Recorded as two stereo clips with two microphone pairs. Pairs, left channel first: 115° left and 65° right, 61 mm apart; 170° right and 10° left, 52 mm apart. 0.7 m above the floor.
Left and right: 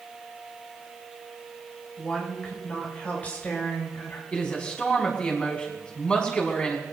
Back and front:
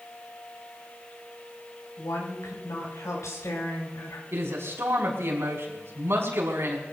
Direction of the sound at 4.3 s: 45° left.